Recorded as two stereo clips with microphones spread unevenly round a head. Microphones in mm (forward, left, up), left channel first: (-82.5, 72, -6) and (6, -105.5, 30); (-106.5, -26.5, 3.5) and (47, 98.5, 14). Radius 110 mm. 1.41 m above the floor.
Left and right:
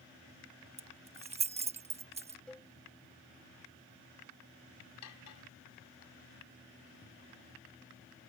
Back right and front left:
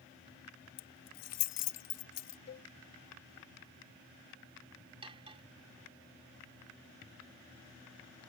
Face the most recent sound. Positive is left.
turn(degrees=100)